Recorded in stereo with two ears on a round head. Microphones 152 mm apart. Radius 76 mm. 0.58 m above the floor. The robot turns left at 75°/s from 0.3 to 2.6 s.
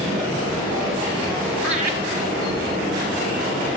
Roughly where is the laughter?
Centre.